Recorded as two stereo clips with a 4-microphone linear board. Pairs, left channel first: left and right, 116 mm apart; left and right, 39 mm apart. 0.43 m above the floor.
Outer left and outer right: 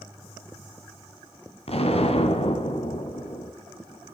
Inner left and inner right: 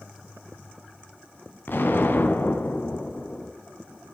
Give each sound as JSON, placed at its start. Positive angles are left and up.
{"t": 1.7, "sound": "an explosion", "side_deg": 65, "distance_m": 1.1}